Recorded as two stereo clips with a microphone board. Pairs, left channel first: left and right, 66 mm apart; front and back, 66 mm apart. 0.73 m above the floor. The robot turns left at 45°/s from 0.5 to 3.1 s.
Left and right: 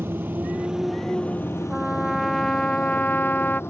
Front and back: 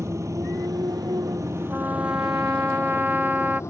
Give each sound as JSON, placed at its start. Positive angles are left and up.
{"t": 0.0, "sound": "a motorcycle", "azimuth_deg": -145}
{"t": 1.7, "sound": "a trumpet", "azimuth_deg": -160}